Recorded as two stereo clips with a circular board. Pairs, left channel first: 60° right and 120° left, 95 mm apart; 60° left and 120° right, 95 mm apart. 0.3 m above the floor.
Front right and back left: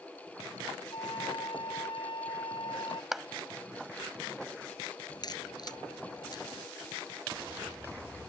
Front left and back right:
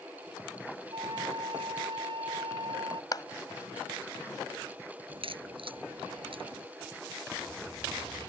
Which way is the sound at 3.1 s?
35° left.